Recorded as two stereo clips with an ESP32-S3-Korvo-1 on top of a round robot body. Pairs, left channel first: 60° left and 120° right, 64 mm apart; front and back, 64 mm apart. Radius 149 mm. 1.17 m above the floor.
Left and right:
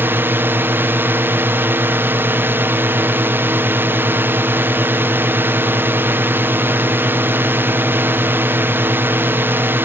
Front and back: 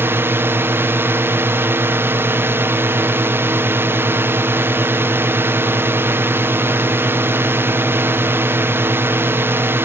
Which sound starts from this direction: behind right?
A drone, at 0.0 s.